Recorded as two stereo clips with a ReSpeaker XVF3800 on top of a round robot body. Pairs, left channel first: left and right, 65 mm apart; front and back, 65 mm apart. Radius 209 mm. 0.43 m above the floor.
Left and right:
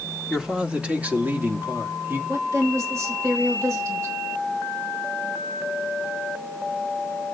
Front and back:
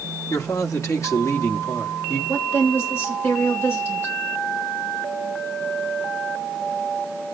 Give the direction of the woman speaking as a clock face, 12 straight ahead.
2 o'clock.